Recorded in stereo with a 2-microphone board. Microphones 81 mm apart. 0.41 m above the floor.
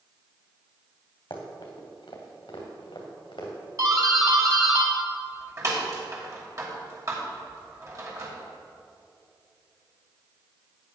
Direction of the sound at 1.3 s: 80° left.